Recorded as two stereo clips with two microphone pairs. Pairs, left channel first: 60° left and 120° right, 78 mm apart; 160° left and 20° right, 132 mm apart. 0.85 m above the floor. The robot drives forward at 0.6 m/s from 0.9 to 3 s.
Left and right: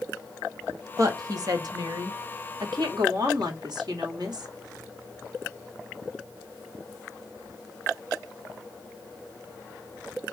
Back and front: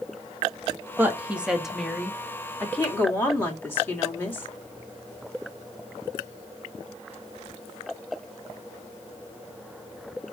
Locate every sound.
1.0 s a woman speaking: 90° right, 1.7 m; by 4.5 s 130° right, 2 m